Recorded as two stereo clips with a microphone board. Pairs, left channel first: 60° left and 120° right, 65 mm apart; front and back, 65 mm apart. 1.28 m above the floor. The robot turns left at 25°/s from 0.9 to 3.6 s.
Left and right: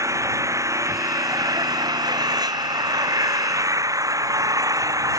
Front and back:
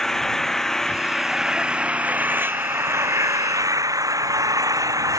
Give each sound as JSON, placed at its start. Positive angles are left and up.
{"t": 0.0, "sound": "an engine running", "azimuth_deg": -85}